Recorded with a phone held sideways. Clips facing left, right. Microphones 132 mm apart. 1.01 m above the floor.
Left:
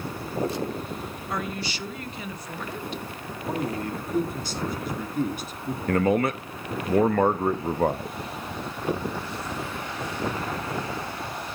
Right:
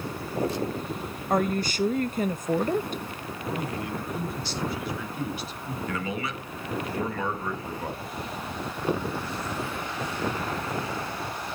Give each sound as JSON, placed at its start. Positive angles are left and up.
{"t": 1.3, "sound": "a woman speaking", "side_deg": -45, "distance_m": 0.8}
{"t": 3.5, "sound": "a man speaking", "side_deg": 45, "distance_m": 2.0}
{"t": 5.9, "sound": "a man speaking", "side_deg": 55, "distance_m": 0.9}